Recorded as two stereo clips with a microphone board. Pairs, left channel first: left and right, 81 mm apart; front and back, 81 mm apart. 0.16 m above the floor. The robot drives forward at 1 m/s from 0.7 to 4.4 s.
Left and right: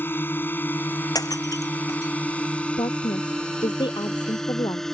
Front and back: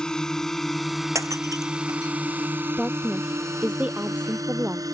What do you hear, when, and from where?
0.0 s a drone: 70° left; by 4.9 s 175° left
1.1 s breaking glass: 130° left; by 2.1 s 140° left
2.8 s a woman speaking: 95° left; by 4.8 s 115° left